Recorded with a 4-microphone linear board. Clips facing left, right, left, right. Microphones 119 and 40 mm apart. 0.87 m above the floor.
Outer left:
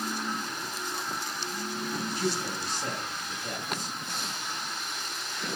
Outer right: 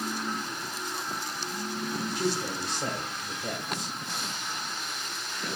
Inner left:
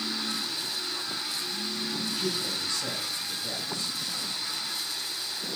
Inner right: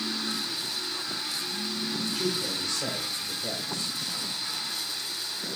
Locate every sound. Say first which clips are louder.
2.1 s a man speaking: outer right 2 dB, inner right 1 dB; 75° right (ahead or behind), 3.5 m